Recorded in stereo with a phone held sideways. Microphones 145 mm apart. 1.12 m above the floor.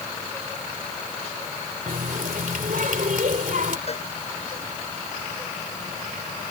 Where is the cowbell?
45° left (ahead or behind).